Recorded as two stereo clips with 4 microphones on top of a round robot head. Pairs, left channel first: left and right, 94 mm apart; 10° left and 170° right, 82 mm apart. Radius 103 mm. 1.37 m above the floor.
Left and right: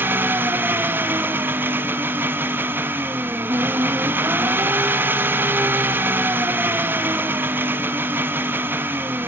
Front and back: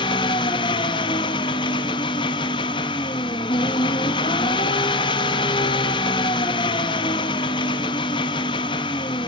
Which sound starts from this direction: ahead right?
An engine running, at 0.0 s.